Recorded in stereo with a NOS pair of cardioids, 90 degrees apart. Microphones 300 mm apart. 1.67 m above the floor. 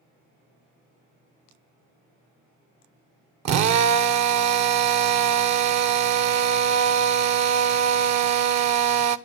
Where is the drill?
65° right, 1.1 m.